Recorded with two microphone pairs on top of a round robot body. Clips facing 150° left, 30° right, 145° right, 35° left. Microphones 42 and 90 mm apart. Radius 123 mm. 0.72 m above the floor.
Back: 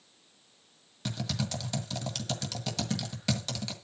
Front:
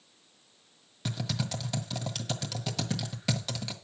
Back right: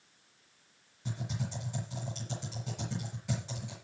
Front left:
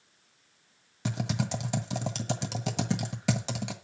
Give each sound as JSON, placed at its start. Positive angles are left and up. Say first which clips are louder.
{"t": 1.1, "sound": "typing on a keyboard", "louder": "even, front left 8 dB", "azimuth_deg": 50, "distance_m": 1.5}